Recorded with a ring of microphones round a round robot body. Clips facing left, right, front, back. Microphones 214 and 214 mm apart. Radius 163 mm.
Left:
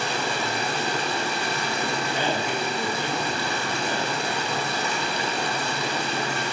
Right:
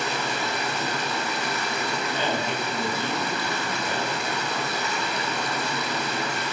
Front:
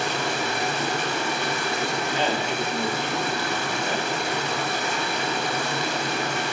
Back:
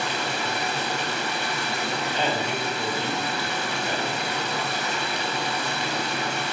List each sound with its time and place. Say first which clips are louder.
0.0 s running water: left 1 dB, front 2 dB; 35° left, 0.8 m
2.1 s a man speaking: even, front 1 dB; 90° left, 1.4 m